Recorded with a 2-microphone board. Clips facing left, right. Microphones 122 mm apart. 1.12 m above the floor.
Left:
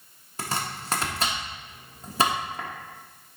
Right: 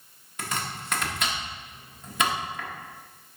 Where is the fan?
I don't hear a fan.